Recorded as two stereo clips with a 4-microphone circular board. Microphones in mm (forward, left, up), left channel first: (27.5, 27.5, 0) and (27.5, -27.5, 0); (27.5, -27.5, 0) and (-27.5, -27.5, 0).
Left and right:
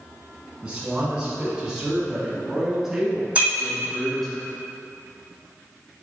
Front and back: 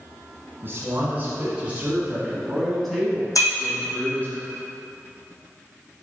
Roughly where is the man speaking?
Behind right.